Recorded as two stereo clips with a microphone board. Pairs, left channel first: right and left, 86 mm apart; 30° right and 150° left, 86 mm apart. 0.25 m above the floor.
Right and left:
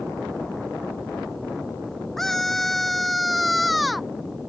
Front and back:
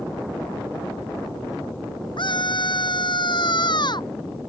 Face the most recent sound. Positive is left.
turn(degrees=0)